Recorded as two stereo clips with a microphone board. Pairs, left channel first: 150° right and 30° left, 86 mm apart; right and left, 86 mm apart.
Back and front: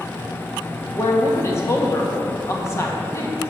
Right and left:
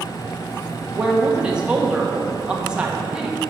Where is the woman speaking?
165° left, 1.3 m.